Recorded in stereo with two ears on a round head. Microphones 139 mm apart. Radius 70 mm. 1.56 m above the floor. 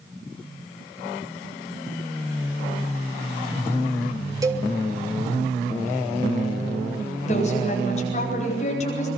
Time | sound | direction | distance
4.4 | a cowbell | 20° right (ahead or behind) | 2.5 m
7.3 | a woman speaking | 45° left (ahead or behind) | 9.5 m